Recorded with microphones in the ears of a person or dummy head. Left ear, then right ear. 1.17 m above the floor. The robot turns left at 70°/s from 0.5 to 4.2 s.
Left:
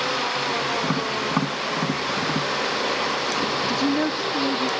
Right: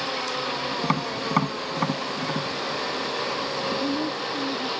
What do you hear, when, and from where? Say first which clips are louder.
0.8 s tapping: left 2 dB; 70° right (ahead or behind); by 2.5 s 5° left (ahead or behind)
3.7 s a woman speaking: left 4 dB; 80° left; by 4.7 s 45° left